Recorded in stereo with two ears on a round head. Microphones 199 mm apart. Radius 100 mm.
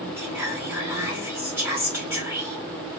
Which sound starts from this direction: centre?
Whispering, at 0.2 s.